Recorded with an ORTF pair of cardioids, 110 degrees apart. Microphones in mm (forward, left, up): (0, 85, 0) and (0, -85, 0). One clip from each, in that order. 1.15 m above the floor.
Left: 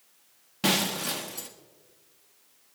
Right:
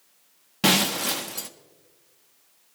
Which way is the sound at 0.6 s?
25° right.